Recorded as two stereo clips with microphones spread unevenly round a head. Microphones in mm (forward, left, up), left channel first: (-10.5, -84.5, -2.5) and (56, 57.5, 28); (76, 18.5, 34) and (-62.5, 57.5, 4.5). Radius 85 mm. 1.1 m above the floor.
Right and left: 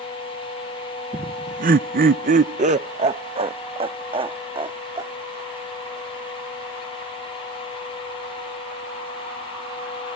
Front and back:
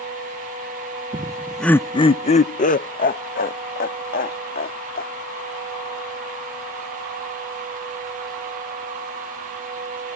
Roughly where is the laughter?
Behind left.